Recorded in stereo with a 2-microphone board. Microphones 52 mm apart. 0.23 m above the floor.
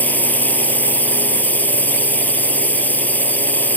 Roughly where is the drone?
Left.